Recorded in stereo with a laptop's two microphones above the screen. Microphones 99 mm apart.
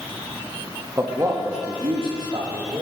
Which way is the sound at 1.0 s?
25° right (ahead or behind).